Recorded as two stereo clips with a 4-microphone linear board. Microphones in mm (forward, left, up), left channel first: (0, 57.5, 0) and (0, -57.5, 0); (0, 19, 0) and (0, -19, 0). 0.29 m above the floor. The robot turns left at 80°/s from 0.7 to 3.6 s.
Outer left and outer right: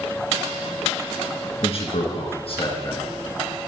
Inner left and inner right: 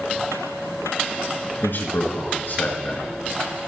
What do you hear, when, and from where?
1.6 s a man speaking: 130° left, 4 m; by 3.0 s 15° left, 4 m